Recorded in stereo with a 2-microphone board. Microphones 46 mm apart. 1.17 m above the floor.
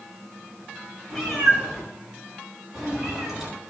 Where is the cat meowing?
Centre (ahead or behind), 6 m; by 3.5 s 10° right (ahead or behind), 7 m.